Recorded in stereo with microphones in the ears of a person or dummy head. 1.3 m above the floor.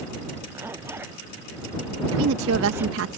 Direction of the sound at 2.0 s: 75° right (ahead or behind).